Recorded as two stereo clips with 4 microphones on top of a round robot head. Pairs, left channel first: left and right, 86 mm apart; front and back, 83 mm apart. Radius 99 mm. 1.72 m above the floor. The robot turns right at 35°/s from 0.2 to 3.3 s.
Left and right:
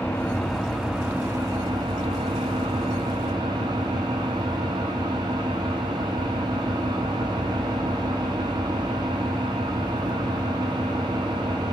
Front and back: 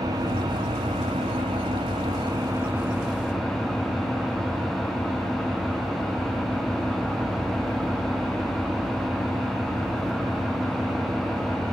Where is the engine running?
165° left, 0.7 m; by 11.7 s 90° right, 0.7 m.